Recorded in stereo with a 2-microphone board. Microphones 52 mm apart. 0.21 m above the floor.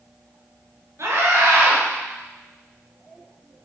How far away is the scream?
About 3.5 m.